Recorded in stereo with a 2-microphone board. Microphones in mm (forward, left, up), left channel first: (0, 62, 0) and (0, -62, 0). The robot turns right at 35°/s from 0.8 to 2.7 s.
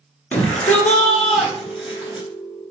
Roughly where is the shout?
Centre.